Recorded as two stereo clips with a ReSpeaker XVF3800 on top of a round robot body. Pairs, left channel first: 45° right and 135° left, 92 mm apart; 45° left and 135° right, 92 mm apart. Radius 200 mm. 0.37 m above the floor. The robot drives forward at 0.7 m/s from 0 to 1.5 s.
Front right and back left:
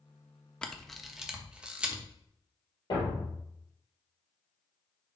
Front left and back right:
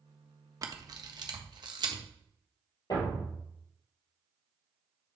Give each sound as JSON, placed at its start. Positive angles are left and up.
{"t": 0.6, "sound": "a camera shutter", "azimuth_deg": -120, "distance_m": 1.2}
{"t": 2.9, "sound": "a thud", "azimuth_deg": 0, "distance_m": 3.0}